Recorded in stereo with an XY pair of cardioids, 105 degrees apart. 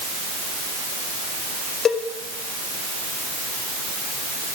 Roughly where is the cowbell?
Ahead left.